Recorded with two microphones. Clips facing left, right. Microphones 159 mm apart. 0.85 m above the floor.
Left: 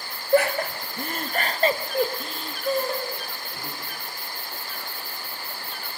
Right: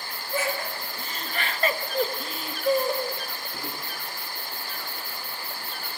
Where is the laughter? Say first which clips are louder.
Left 9 dB; 65° left (ahead or behind), 1.4 m; by 3.8 s 30° right (ahead or behind), 2 m.